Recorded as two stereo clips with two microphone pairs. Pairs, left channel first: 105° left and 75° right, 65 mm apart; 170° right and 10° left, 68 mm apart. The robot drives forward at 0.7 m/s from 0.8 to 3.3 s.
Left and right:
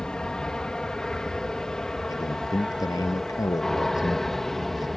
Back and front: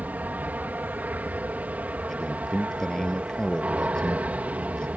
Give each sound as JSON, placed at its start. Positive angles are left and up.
{"t": 0.0, "sound": "an aircraft", "azimuth_deg": 40}
{"t": 2.1, "sound": "a man speaking", "azimuth_deg": 110}